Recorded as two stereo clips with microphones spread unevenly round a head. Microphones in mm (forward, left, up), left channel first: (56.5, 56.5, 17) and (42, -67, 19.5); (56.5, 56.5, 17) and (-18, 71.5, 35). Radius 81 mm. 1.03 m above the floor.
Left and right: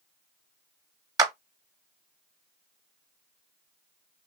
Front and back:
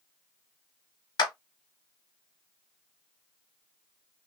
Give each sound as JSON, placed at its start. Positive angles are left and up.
{"t": 1.2, "sound": "a clap", "azimuth_deg": -35, "distance_m": 0.7}